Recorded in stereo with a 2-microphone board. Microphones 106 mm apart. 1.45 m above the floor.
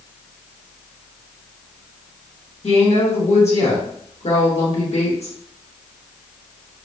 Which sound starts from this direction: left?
A woman speaking, at 2.6 s.